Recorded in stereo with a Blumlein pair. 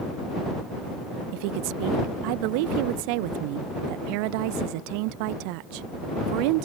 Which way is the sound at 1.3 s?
45° right.